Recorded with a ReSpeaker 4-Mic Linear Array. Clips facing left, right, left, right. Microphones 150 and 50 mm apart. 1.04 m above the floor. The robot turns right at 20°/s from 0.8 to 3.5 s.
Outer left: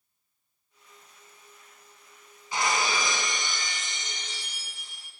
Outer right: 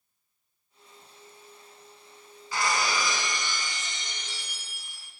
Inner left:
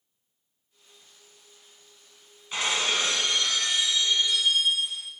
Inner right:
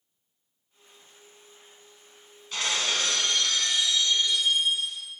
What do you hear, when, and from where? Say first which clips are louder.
2.5 s breaking glass: outer left 1 dB, inner left 2 dB; 20° left (ahead or behind), 1.0 m